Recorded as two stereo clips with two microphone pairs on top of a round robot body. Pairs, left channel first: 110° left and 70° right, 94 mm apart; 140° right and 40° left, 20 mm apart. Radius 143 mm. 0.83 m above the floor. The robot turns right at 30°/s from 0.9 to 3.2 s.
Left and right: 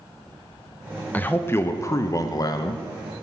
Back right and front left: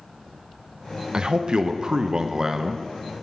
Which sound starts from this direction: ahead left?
A man speaking, at 1.1 s.